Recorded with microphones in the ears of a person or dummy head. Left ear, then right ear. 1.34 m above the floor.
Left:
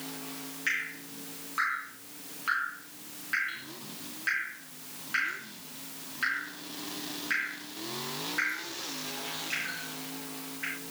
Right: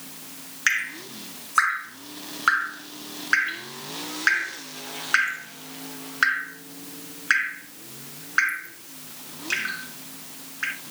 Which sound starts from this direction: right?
Dripping, at 0.7 s.